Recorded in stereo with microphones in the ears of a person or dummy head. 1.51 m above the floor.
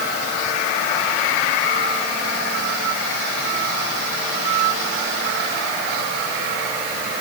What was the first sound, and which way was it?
Only background noise.